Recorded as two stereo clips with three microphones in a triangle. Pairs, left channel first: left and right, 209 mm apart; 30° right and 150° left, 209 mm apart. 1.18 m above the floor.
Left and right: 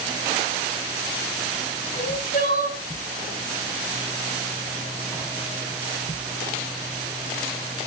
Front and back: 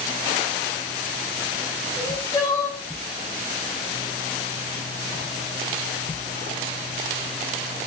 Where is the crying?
40° left, 3 m.